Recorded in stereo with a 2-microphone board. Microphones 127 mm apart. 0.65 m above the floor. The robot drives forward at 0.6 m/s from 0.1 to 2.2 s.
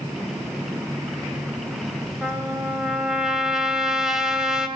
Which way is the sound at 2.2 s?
5° right (ahead or behind).